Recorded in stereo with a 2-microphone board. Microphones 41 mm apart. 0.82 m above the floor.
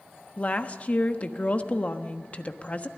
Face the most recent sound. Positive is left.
turn(degrees=35)  # may be behind; listen again after turning